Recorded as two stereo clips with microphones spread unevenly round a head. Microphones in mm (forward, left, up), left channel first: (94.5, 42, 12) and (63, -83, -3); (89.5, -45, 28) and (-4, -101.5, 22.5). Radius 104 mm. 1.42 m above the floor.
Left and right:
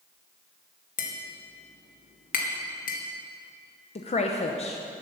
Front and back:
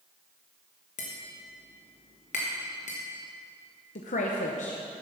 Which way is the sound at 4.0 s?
40° left.